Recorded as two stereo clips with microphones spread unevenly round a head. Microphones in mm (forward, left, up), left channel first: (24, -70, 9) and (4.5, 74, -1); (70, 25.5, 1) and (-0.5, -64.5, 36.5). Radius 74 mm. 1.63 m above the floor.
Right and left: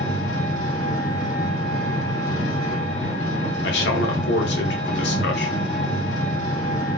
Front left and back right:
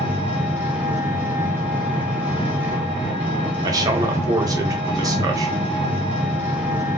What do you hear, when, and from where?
0.0 s an engine running: 75° right, 1.9 m
3.6 s a man speaking: 70° right, 0.7 m